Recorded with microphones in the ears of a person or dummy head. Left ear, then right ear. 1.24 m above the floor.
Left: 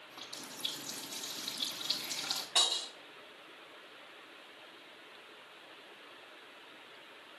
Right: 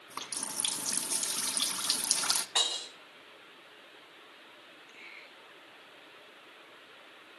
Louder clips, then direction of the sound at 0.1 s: Right 7 dB; 60° right (ahead or behind).